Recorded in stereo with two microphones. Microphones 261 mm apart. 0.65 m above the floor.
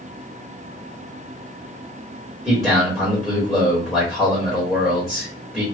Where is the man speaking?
Centre (ahead or behind), 1.5 m.